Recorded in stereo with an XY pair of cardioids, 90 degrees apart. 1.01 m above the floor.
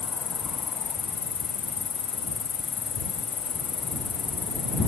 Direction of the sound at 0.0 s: 55° left.